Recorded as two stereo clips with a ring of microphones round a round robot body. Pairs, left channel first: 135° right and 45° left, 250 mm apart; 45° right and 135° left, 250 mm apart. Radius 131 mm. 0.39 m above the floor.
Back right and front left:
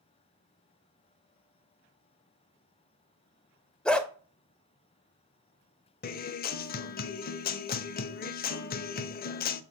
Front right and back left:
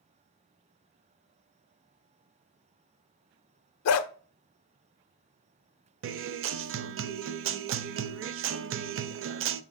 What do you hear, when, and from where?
3.9 s a dog barking: 50° right, 0.6 m
6.0 s a guitar: 170° left, 0.5 m